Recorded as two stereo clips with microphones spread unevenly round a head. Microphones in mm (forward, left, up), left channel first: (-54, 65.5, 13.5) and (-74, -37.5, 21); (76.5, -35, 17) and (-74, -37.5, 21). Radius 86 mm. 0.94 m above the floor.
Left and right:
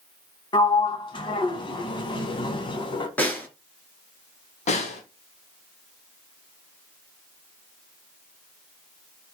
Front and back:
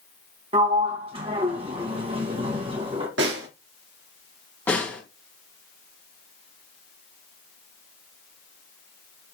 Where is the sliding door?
120° left, 1.8 m.